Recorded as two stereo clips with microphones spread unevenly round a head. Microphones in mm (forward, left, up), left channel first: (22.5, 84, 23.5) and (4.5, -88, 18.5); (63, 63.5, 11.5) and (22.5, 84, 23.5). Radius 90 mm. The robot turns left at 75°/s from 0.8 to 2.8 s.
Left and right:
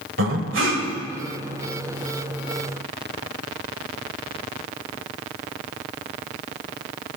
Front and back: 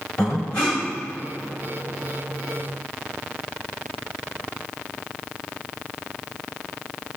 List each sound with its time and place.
0.2 s breathing: 100° right, 1.8 m; by 0.9 s 105° right, 1.8 m